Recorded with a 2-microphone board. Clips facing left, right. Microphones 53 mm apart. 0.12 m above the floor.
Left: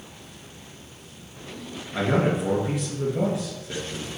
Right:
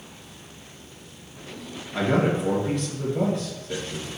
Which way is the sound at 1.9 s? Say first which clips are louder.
Even; 5° left (ahead or behind).